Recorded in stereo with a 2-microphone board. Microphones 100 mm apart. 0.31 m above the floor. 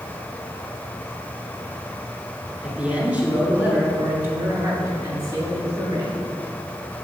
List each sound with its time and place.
2.6 s a man speaking: 10° right (ahead or behind), 5 m; by 6.3 s 40° right (ahead or behind), 5.5 m